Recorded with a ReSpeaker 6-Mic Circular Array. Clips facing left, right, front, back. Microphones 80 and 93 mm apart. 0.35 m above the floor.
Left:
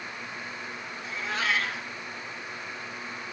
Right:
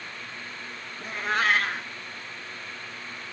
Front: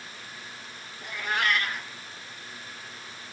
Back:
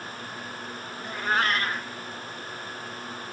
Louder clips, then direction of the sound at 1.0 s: Right 5 dB, back 3 dB; 130° right.